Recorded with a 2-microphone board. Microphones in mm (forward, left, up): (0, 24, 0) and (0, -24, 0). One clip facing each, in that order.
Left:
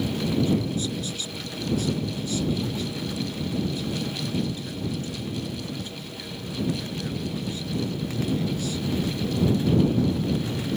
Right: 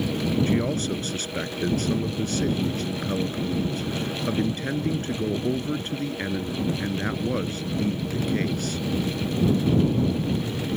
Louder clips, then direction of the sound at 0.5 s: Right 1 dB; 55° right (ahead or behind).